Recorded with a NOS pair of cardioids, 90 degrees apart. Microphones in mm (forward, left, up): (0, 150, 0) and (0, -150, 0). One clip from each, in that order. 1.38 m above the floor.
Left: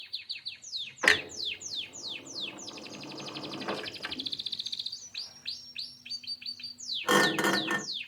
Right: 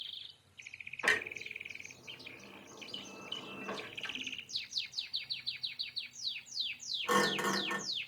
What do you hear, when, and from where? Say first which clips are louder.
1.0 s a clunk: left 7 dB; 45° left, 0.6 m